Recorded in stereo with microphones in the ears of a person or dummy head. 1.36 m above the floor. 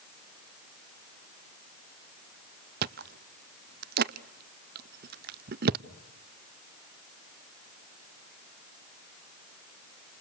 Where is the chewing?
45° right (ahead or behind), 0.5 m.